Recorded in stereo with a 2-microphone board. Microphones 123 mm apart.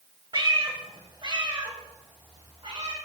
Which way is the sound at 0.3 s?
40° right (ahead or behind).